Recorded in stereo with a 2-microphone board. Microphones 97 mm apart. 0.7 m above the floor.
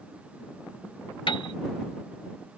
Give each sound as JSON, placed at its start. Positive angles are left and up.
{"t": 1.3, "sound": "a piano", "side_deg": 65}